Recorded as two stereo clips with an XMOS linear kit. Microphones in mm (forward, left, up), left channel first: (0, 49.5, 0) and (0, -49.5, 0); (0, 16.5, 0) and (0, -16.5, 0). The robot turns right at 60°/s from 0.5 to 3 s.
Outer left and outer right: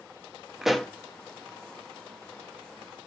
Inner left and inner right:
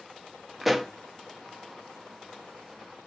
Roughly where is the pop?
Centre.